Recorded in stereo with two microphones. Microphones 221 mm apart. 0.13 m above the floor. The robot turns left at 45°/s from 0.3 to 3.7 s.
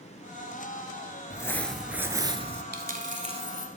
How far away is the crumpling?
About 0.6 m.